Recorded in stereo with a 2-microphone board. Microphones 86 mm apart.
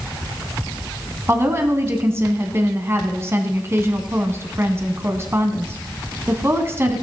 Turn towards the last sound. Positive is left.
turn(degrees=-30)  # may be behind; listen again after turning